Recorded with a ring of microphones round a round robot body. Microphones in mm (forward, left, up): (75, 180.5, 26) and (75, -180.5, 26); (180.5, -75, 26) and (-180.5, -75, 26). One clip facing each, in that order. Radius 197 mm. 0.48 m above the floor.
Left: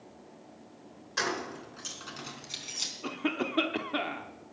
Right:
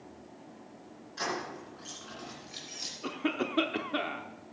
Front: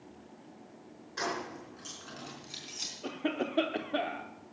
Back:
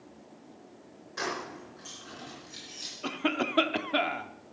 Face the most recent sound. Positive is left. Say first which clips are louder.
# even, back 2 dB
turn(degrees=175)